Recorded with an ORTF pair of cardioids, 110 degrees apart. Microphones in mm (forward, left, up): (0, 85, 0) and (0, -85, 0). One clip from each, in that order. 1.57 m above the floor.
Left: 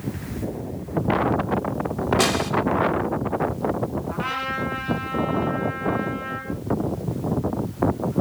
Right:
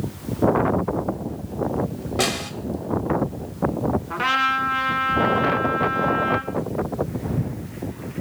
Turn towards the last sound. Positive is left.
turn(degrees=-40)